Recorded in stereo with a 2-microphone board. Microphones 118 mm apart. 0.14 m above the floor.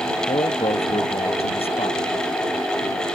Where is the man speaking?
60° left (ahead or behind).